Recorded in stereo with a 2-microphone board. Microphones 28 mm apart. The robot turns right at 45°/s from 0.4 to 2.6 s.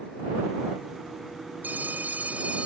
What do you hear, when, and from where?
1.6 s a phone ringing: 95° right; by 2.7 s 50° right